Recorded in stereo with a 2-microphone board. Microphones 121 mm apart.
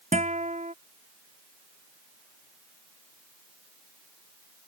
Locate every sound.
0.1 s a guitar: 75° right (ahead or behind)